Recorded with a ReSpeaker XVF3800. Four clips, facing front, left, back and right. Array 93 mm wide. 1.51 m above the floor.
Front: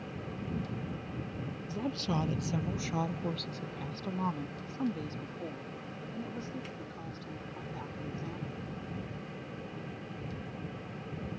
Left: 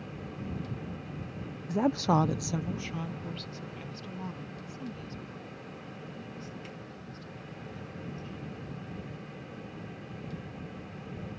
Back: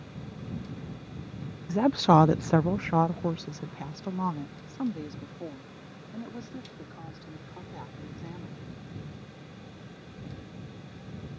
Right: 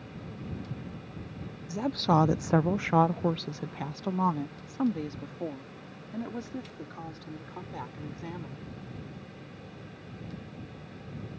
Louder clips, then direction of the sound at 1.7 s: Even, back 14 dB; 145° left.